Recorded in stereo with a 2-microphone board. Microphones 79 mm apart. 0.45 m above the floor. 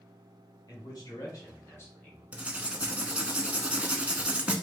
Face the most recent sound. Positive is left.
turn(degrees=-15)  # may be behind; listen again after turning